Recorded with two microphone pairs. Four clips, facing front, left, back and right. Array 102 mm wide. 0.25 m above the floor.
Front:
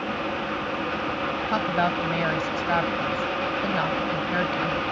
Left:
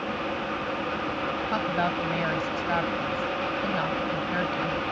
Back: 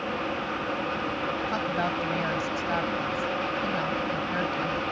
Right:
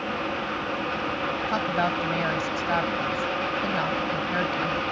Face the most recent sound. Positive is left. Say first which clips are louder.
# right 2 dB, front 7 dB
turn(degrees=-15)